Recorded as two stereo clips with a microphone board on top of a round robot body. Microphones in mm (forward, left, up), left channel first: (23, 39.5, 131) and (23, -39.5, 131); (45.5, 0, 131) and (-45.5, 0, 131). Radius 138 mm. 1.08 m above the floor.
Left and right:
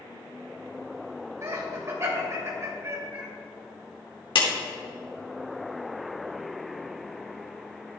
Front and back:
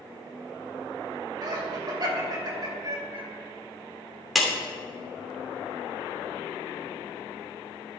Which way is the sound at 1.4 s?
140° right.